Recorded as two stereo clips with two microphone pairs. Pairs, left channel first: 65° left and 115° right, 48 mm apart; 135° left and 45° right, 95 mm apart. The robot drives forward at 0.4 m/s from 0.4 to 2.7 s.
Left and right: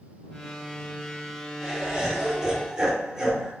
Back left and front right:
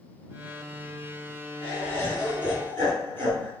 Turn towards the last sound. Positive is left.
turn(degrees=175)